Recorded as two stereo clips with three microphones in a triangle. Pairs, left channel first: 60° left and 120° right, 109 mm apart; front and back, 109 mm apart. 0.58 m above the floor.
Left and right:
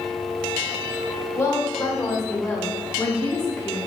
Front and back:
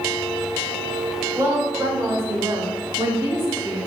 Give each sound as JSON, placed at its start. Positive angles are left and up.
{"t": 1.4, "sound": "a woman speaking", "azimuth_deg": 120, "distance_m": 2.0}